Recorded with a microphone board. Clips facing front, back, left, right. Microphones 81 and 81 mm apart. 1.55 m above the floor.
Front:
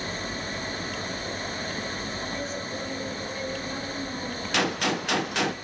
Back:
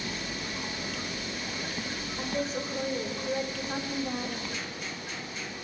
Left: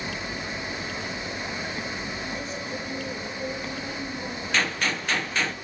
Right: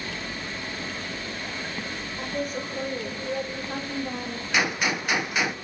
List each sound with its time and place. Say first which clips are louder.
2.2 s a woman speaking: back 1 dB, right 3 dB; 130° right, 7 m; by 4.4 s 115° right, 5.5 m
4.5 s a gunshot: front 12 dB, right 2 dB; 10° right, 1.0 m